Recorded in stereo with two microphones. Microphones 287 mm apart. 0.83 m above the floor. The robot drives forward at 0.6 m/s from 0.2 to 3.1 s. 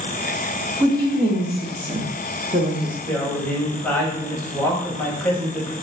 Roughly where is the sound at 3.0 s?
Centre.